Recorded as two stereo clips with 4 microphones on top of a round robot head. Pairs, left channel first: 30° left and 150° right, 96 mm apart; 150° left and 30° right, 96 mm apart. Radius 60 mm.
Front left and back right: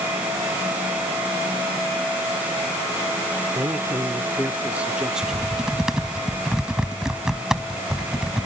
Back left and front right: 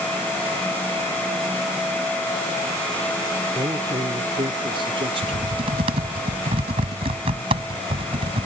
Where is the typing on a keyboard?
65° right.